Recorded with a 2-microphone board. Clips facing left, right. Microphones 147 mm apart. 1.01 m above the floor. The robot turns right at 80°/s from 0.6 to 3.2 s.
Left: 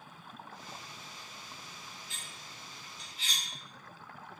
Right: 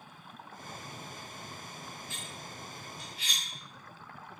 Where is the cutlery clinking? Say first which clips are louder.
Right 6 dB; 20° left (ahead or behind), 1.7 m; by 3.4 s 70° right (ahead or behind), 1.7 m.